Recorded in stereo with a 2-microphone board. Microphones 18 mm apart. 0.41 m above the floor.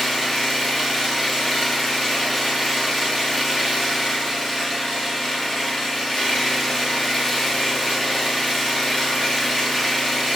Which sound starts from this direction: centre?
An engine running, at 0.0 s.